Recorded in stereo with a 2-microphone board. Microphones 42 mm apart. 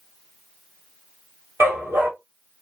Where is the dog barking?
80° right, 1.7 m.